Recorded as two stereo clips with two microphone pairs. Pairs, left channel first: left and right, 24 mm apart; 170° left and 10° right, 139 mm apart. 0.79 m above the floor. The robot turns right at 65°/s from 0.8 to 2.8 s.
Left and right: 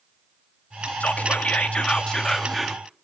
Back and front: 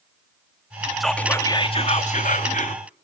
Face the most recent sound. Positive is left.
turn(degrees=-165)